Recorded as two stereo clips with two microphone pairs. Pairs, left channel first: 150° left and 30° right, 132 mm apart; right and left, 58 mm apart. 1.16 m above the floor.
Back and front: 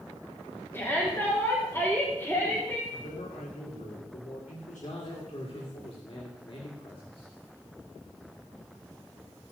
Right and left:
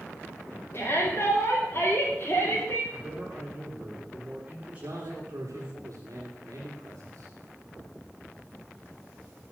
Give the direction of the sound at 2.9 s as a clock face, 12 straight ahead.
7 o'clock.